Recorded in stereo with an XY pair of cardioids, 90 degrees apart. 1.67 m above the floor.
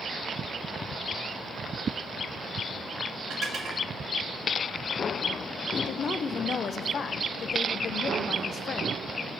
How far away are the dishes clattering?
About 2.5 m.